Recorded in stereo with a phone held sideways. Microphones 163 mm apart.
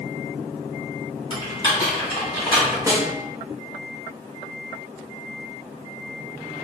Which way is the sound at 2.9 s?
20° right (ahead or behind).